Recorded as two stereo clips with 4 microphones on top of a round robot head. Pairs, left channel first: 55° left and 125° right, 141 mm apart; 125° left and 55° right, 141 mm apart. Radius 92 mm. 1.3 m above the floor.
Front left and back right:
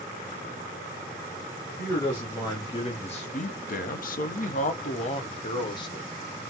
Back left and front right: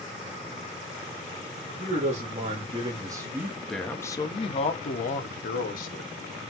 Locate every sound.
1.8 s a man speaking: 15° right, 1.9 m; by 6.1 s 115° left, 1.9 m